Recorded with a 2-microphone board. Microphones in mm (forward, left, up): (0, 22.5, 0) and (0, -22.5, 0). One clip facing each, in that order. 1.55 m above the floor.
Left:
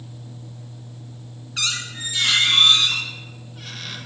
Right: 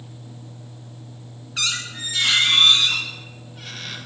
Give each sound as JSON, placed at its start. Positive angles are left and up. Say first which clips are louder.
{"t": 1.6, "sound": "a squeak", "louder": "even", "side_deg": 0, "distance_m": 0.7}